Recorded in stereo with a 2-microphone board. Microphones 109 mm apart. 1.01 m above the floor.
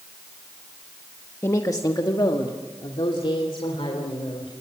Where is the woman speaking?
25° left (ahead or behind), 1.2 m; by 4.5 s 65° left (ahead or behind), 4 m.